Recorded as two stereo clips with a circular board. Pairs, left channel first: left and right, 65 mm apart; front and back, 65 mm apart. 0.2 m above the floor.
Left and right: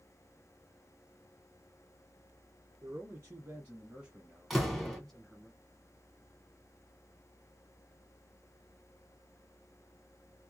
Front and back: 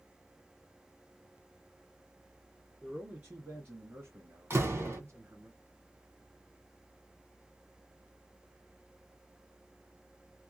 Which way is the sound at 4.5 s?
175° left.